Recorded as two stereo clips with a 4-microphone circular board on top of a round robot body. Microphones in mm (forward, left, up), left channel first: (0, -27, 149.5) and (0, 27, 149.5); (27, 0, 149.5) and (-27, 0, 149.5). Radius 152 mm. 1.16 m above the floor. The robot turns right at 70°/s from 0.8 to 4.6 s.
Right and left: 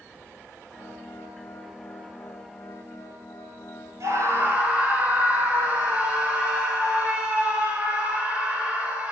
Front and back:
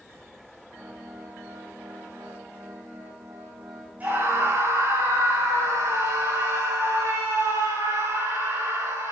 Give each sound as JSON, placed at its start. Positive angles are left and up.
{"t": 4.0, "sound": "a scream", "azimuth_deg": 115, "distance_m": 6.5}